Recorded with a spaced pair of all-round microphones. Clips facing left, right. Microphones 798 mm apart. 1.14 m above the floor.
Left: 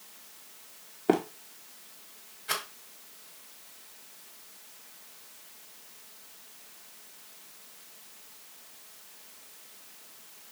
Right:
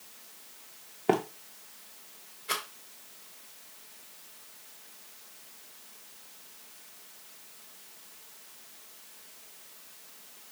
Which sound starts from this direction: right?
Running footsteps, at 1.1 s.